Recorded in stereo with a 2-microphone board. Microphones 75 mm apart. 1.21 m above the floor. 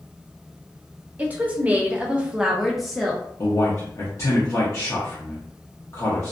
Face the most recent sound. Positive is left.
turn(degrees=40)  # may be behind; listen again after turning